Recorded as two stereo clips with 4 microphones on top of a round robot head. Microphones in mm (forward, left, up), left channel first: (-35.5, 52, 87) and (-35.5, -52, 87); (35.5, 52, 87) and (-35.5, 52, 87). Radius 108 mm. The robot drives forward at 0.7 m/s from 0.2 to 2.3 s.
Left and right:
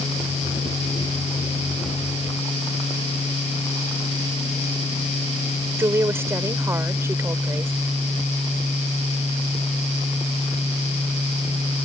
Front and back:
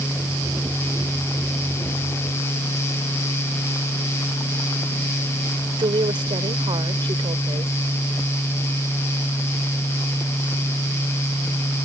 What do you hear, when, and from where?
5.8 s a woman speaking: 160° right